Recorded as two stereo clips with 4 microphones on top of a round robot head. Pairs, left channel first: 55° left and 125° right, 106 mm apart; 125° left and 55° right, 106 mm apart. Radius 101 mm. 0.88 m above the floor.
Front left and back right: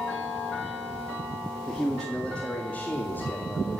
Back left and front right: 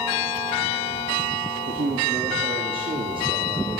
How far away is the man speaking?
About 2 m.